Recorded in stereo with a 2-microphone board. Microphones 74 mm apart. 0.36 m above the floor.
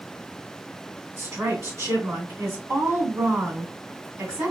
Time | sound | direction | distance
1.2 | a woman speaking | 45° right (ahead or behind) | 1.7 m